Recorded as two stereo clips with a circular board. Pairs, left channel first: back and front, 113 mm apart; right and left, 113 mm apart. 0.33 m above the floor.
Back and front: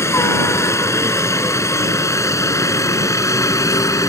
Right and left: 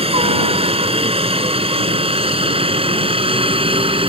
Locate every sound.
0.0 s a helicopter: 115° left; by 4.1 s 120° left